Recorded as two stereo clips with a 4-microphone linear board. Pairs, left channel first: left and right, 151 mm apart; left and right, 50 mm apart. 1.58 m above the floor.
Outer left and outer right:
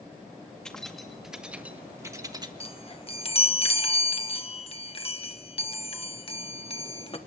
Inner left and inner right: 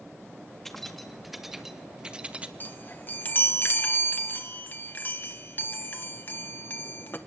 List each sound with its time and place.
0.7 s keys jangling: 5° left (ahead or behind), 1.9 m; by 2.5 s 30° right (ahead or behind), 1.3 m
2.6 s a chime: 40° left (ahead or behind), 1.3 m